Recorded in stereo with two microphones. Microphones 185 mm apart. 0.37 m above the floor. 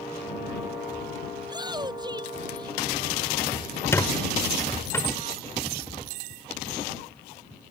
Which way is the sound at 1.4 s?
25° right (ahead or behind).